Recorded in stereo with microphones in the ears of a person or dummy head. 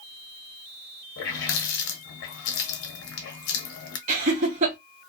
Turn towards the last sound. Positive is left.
turn(degrees=-35)  # may be behind; listen again after turning